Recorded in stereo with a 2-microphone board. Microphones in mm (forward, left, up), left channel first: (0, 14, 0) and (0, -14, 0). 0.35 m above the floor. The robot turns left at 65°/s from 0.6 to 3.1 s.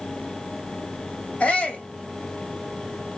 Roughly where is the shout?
Behind left.